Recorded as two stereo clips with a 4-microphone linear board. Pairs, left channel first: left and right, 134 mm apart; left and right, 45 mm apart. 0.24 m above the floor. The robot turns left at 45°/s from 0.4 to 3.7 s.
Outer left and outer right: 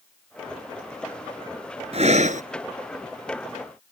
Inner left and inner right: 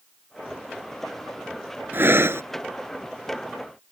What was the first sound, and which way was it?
Breathing, 50° right (ahead or behind).